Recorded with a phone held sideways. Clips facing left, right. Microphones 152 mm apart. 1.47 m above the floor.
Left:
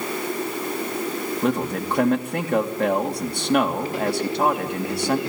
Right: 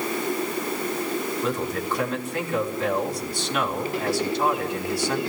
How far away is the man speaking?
About 3 m.